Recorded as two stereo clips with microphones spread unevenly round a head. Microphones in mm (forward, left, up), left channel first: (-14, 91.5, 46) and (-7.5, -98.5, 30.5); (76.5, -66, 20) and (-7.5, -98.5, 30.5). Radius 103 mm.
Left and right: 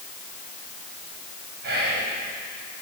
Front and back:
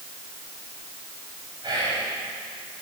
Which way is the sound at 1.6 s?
125° right.